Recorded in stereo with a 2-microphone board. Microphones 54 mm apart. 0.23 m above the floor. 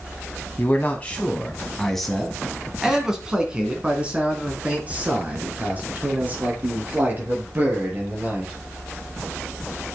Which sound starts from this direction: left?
A man speaking, at 0.6 s.